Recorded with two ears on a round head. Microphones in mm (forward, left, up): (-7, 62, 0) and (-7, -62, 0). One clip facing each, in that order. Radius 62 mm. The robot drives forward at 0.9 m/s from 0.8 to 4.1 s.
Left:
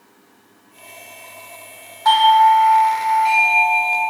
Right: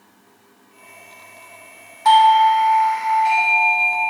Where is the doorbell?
15° right (ahead or behind), 0.7 m; by 4.0 s 5° right (ahead or behind), 2.5 m.